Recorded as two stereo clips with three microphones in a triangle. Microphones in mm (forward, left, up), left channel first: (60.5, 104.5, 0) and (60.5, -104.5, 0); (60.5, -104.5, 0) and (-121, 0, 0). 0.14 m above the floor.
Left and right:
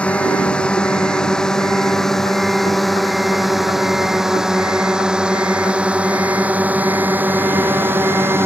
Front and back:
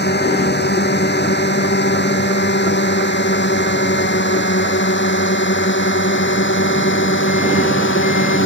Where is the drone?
5° left; by 8.5 s 10° right.